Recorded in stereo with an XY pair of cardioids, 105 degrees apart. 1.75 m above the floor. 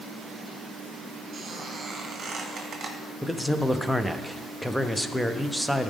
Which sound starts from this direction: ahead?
A man speaking, at 3.2 s.